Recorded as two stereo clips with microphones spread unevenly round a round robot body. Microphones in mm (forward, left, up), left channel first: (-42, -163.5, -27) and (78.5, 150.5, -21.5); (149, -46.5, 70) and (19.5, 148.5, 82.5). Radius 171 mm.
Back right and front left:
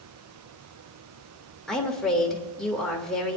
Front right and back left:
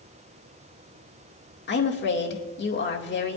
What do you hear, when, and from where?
1.7 s a woman speaking: 25° right, 2 m